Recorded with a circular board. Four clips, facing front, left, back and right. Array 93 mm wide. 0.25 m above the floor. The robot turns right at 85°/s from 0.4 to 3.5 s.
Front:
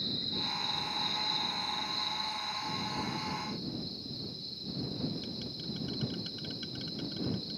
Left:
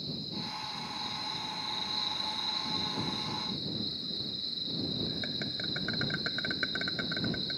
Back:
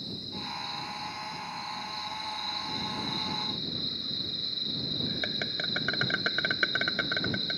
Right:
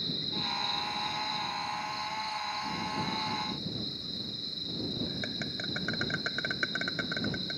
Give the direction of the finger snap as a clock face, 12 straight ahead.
I don't hear a finger snap.